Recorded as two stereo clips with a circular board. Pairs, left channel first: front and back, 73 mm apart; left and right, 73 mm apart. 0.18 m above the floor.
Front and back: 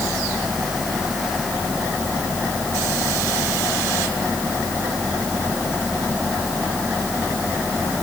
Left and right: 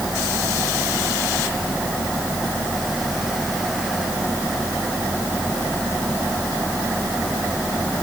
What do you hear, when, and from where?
Only background noise.